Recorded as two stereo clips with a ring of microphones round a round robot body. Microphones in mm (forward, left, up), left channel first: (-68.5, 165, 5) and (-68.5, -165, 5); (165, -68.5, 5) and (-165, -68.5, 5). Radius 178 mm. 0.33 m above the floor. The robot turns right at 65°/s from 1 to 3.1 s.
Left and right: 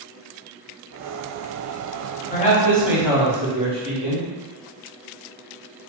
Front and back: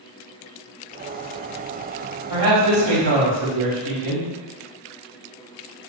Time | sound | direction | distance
2.3 | a man speaking | 145° left | 2.0 m